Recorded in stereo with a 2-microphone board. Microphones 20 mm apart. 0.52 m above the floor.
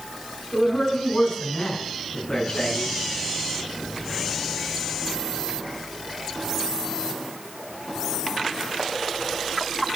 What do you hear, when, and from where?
0.5 s a man speaking: 75° left (ahead or behind), 6 m; by 2.9 s 50° left (ahead or behind), 5.5 m